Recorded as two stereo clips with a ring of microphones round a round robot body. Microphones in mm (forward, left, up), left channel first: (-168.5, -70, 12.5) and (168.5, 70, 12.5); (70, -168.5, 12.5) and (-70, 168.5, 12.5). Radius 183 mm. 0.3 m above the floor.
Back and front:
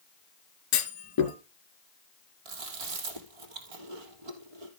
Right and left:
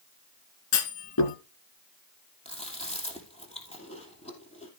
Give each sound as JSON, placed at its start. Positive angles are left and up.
{"t": 0.7, "sound": "a clunk", "azimuth_deg": -110, "distance_m": 2.0}
{"t": 2.5, "sound": "chewing", "azimuth_deg": 5, "distance_m": 3.0}